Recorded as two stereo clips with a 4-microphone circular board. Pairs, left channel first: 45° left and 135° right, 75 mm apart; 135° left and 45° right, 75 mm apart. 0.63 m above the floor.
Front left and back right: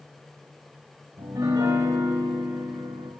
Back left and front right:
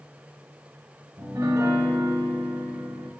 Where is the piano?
95° right, 1.2 m.